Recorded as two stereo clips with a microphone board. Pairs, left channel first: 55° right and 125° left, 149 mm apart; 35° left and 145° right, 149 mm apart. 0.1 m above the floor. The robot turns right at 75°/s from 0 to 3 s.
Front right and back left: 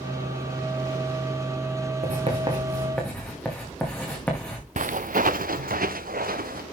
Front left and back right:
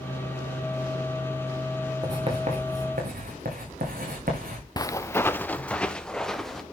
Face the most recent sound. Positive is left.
turn(degrees=120)